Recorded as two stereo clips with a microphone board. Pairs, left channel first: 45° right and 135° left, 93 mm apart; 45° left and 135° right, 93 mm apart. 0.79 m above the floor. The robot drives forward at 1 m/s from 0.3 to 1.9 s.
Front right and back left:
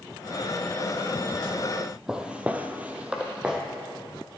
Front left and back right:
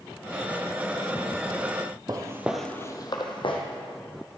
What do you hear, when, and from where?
2.1 s footsteps: 145° right, 1.1 m; by 3.6 s 55° left, 1.8 m